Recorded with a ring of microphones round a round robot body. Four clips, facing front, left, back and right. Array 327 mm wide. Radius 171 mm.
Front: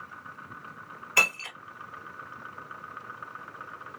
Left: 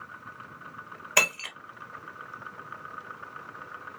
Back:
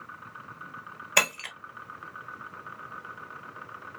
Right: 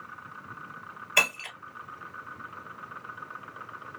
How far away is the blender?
I don't hear a blender.